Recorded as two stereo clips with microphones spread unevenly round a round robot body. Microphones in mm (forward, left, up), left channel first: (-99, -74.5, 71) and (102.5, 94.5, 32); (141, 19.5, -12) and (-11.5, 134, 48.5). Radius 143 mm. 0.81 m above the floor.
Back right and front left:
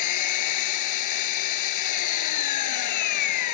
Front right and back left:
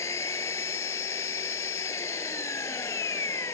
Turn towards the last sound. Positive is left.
turn(degrees=-120)